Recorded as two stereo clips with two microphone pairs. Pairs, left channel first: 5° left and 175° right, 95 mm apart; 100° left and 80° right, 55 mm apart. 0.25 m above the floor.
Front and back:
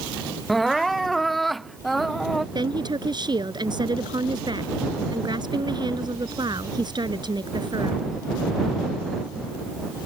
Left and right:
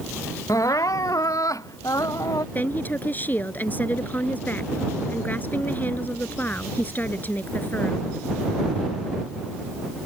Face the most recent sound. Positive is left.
turn(degrees=150)